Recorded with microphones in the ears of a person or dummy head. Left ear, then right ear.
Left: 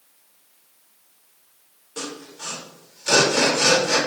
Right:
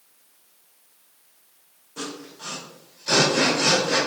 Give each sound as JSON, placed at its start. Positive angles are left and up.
{"t": 2.0, "sound": "sawing", "side_deg": 90, "distance_m": 3.0}